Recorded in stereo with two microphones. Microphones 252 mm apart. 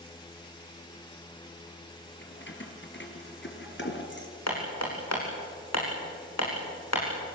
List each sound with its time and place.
2.2 s keys jangling: 50° left (ahead or behind), 3.5 m; by 4.3 s 45° left (ahead or behind), 2.5 m
4.5 s hammering: 80° left, 6 m